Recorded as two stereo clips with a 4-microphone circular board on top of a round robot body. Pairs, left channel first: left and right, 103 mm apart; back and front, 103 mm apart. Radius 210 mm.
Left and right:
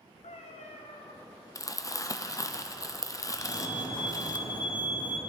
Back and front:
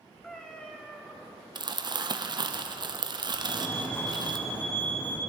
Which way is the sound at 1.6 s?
35° left.